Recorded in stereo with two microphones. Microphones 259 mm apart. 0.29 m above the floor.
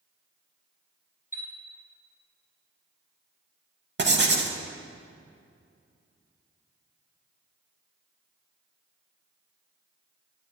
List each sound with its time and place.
1.3 s a chime: 35° left (ahead or behind), 1.2 m
4.0 s writing: 45° right (ahead or behind), 0.6 m